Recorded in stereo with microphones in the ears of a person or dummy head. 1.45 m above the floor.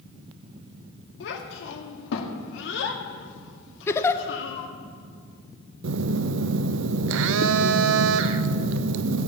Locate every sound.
1.2 s a child speaking: 70° left (ahead or behind), 1.9 m
3.9 s a giggle: 15° left (ahead or behind), 0.7 m
5.8 s a phone buzzing: 70° right (ahead or behind), 0.5 m